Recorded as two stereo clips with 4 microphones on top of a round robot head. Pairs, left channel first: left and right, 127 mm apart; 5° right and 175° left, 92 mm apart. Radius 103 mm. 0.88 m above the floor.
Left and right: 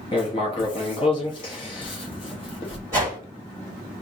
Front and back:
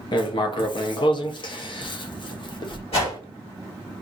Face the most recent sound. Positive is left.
turn(degrees=-20)